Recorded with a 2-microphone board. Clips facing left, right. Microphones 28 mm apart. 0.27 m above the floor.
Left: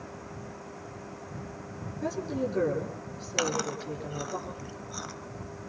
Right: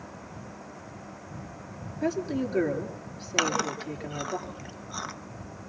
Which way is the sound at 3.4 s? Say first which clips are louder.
Right 3 dB; 25° right (ahead or behind).